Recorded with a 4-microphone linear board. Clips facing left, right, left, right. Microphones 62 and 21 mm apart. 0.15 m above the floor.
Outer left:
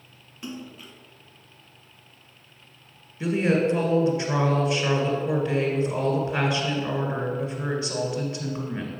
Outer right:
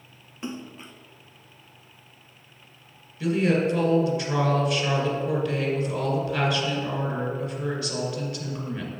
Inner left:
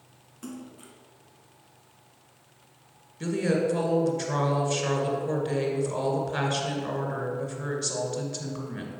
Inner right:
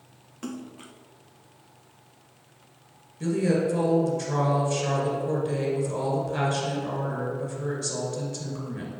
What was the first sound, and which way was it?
A splash, 25° right (ahead or behind).